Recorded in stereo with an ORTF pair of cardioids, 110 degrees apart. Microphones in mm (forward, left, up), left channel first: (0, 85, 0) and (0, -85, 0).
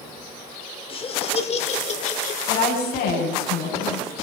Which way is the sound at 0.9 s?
35° left.